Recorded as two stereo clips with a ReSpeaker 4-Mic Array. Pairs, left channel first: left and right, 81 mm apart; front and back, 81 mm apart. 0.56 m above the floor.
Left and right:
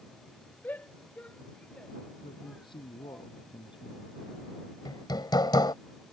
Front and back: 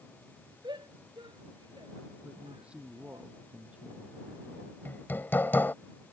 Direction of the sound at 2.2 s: 105° left.